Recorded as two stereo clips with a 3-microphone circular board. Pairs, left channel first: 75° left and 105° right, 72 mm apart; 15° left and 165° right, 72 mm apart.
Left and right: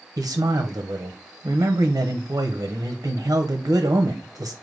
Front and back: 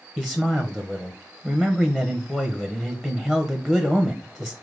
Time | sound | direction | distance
0.2 | a man speaking | 70° right | 0.8 m